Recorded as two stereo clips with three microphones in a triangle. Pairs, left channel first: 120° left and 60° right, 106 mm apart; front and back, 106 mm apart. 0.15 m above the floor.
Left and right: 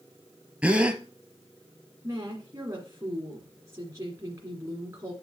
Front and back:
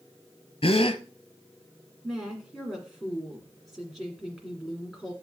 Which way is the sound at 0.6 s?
20° left.